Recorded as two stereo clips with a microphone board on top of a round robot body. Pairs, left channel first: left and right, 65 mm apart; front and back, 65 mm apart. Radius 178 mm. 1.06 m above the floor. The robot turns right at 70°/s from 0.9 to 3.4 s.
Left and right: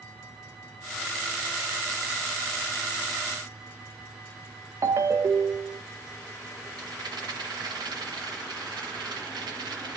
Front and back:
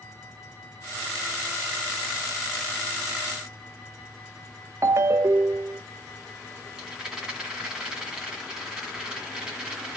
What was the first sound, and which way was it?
A ringtone, 135° right.